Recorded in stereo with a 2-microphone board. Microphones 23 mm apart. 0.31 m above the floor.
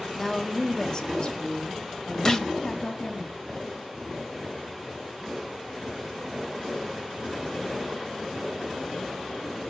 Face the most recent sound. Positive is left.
turn(degrees=25)  # may be behind; listen again after turning